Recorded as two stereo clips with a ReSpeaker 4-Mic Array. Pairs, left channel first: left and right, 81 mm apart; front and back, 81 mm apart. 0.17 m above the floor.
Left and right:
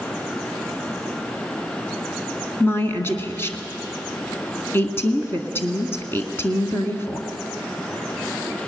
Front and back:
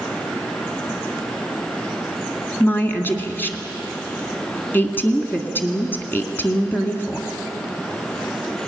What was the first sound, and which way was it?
A woman speaking, 50° left.